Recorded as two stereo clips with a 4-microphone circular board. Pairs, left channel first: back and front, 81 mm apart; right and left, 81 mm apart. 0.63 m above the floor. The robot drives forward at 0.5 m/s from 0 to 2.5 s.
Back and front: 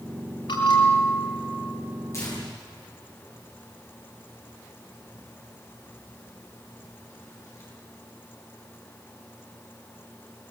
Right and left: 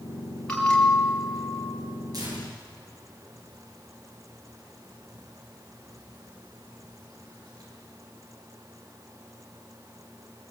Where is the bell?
170° right, 7.5 m.